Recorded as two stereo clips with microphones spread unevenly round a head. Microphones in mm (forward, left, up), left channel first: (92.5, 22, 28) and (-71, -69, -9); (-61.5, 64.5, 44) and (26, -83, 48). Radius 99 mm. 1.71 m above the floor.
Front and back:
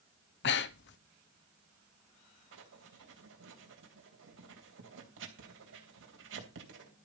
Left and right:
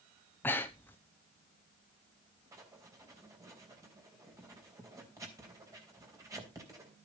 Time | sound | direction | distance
0.4 | breathing | 40° left | 0.7 m
2.5 | writing | 130° right | 3 m